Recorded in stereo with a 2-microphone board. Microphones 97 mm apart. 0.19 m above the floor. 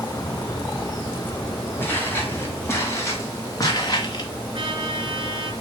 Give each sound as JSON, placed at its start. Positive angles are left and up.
{"t": 0.1, "sound": "a bird", "side_deg": 35, "distance_m": 5.0}
{"t": 1.8, "sound": "footsteps", "side_deg": 20, "distance_m": 3.5}
{"t": 4.5, "sound": "a trumpet", "side_deg": -60, "distance_m": 2.5}